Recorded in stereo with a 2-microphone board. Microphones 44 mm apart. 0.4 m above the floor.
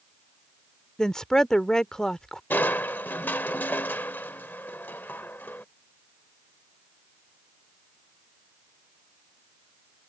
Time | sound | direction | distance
1.0 | a woman speaking | 15° left (ahead or behind) | ?
2.5 | crushing | 50° left (ahead or behind) | ?